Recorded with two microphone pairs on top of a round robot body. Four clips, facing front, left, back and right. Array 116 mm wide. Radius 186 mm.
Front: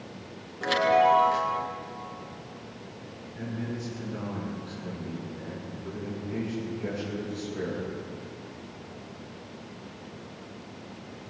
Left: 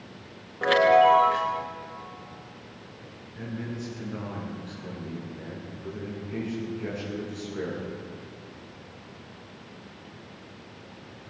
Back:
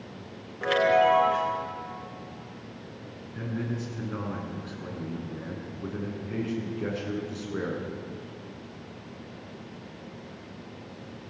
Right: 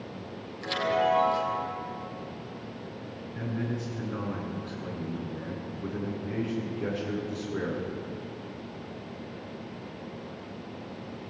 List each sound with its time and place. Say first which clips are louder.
0.6 s a chime: left 9 dB, even; 100° left, 3 m
3.4 s a man speaking: right 2 dB, back 2 dB; 150° right, 9.5 m